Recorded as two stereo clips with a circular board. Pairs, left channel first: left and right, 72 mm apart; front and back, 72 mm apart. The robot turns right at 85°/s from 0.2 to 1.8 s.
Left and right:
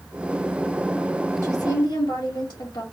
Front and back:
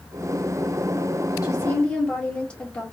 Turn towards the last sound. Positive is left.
turn(degrees=75)